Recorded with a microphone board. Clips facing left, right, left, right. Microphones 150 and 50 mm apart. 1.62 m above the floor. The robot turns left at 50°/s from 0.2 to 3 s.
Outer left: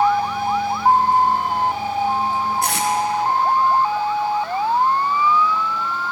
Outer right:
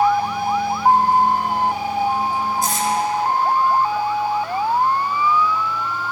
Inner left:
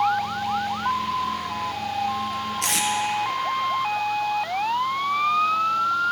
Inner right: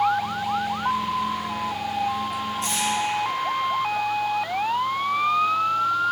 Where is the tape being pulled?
65° left (ahead or behind), 0.9 m; by 2.9 s 75° left (ahead or behind), 0.9 m.